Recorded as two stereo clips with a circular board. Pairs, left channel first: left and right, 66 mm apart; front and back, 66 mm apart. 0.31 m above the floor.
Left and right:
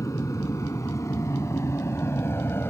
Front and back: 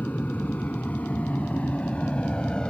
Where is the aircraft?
60° left; by 2.7 s 70° left.